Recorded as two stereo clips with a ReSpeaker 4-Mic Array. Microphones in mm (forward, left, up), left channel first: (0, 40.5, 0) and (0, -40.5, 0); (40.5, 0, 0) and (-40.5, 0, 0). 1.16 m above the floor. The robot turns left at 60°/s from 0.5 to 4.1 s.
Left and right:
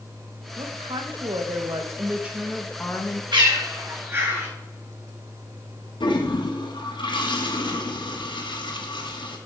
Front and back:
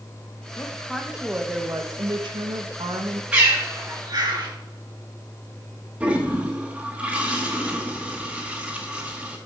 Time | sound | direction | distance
0.6 | a woman speaking | 60° right | 1.1 m
3.3 | a bird | 105° right | 2.5 m
6.0 | a toilet flushing | 105° left | 1.2 m